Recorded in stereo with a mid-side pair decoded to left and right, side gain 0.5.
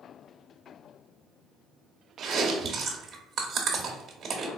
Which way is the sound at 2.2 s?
55° right.